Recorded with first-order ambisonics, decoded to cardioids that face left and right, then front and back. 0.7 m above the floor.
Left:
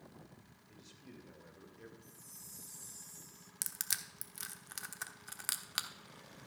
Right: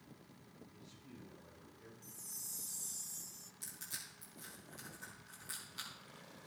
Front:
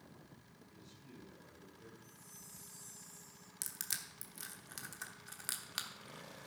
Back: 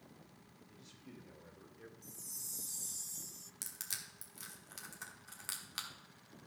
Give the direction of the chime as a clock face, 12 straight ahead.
5 o'clock.